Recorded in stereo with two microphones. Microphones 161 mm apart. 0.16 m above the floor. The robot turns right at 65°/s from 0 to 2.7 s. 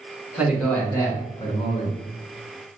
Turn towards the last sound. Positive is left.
turn(degrees=135)